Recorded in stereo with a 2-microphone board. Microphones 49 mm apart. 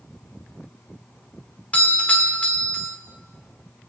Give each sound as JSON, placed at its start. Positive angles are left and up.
{"t": 1.7, "sound": "a doorbell", "side_deg": 25, "distance_m": 1.9}